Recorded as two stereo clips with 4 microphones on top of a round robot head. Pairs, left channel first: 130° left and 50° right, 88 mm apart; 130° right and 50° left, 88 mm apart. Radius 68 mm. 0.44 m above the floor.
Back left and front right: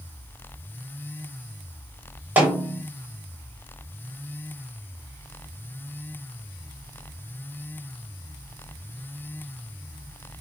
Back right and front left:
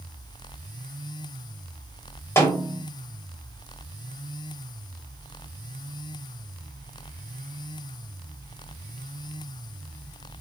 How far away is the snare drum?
About 1.3 m.